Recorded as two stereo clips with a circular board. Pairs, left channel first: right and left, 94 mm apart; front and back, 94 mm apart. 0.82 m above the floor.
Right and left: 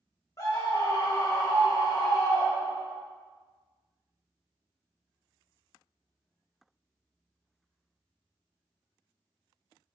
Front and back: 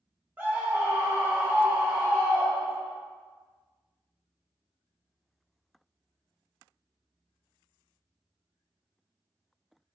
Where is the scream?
120° right, 0.6 m.